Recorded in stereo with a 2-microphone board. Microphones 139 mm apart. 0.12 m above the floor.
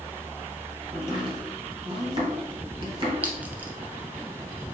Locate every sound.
0.9 s chopping: 35° right (ahead or behind), 1.8 m
3.2 s a clink: 10° right (ahead or behind), 0.8 m